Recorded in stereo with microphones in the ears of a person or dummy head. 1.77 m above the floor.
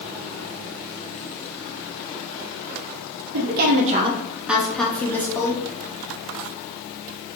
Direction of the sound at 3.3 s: 65° right (ahead or behind).